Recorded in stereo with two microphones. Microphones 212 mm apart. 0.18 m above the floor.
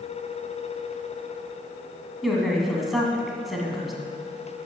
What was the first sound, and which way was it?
A woman speaking, centre (ahead or behind).